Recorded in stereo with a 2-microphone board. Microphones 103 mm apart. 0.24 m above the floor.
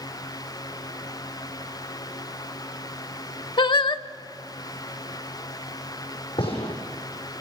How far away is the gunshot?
About 8 m.